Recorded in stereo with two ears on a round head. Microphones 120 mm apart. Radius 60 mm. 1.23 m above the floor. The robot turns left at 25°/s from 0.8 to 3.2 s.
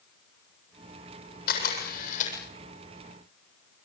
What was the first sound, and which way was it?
A camera shutter, 75° left (ahead or behind).